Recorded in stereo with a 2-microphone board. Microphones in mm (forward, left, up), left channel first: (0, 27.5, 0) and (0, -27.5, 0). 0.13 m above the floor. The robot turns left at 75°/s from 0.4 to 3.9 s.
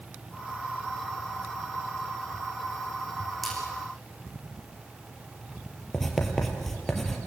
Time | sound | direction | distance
3.4 | a splash | 5° left (ahead or behind) | 9 m
5.9 | writing | 5° left (ahead or behind) | 3.5 m